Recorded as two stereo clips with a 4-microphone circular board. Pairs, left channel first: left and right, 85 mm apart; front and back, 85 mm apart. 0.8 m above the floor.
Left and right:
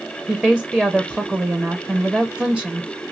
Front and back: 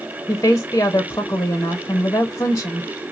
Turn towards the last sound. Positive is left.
turn(degrees=-15)